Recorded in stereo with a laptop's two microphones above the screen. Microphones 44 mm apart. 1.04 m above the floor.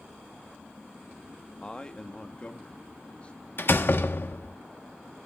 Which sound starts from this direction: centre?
A man speaking, at 1.6 s.